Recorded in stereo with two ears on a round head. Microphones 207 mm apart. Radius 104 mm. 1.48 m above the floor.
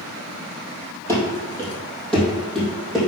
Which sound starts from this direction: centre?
Running footsteps, at 1.1 s.